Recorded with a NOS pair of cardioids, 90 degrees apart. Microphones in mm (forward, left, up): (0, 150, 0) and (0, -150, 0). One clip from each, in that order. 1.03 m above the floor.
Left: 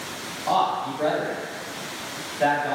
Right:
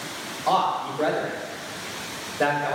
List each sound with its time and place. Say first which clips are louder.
0.5 s a man speaking: even; 70° right, 2 m